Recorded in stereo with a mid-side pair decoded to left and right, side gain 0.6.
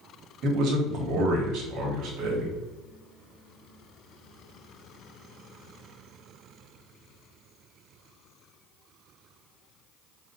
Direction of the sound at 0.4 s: 65° right.